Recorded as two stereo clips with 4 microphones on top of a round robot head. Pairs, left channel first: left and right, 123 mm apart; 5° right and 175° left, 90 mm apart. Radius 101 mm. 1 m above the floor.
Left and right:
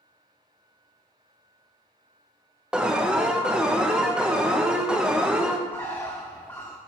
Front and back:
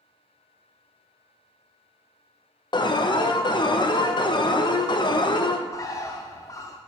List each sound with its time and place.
2.7 s an alarm: 10° right, 1.0 m
5.7 s a bird: 15° left, 0.5 m